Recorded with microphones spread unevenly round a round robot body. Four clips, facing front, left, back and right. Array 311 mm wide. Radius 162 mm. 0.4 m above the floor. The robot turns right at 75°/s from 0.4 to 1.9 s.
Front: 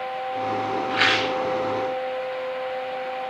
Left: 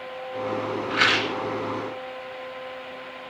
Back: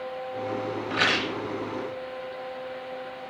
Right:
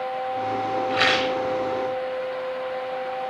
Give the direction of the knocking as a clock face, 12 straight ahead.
I don't hear knocking.